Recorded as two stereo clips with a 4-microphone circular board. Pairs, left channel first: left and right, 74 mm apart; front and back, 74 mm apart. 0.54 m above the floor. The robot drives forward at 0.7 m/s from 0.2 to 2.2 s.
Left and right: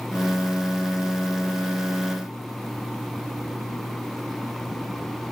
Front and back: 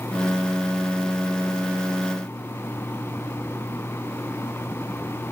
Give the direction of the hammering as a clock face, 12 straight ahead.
No hammering in this recording.